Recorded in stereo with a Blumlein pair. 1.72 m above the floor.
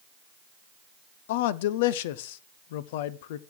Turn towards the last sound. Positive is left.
turn(degrees=50)